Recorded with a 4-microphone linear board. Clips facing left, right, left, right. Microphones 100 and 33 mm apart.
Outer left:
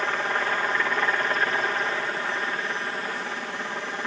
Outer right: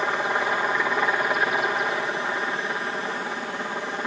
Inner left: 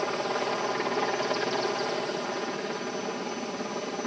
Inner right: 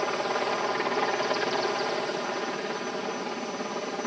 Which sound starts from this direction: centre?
A helicopter, at 0.0 s.